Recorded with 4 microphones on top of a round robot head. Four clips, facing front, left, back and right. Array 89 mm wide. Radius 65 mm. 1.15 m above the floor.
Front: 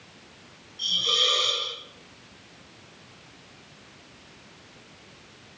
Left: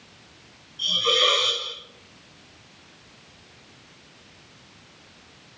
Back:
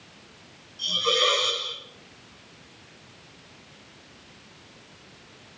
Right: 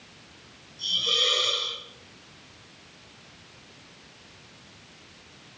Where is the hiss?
130° left, 6.5 m.